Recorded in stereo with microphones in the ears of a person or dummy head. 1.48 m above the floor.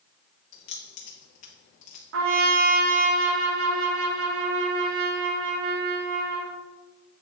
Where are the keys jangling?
30° left (ahead or behind), 0.7 m.